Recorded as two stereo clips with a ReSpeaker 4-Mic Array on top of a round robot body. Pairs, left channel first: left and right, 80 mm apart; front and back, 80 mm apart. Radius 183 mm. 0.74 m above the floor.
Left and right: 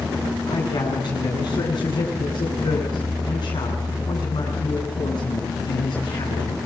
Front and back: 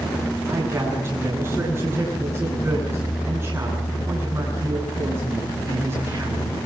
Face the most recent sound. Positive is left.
turn(degrees=120)